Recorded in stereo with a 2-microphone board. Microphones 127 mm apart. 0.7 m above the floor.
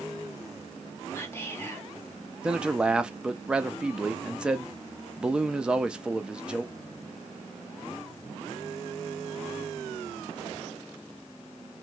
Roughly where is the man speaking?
Centre.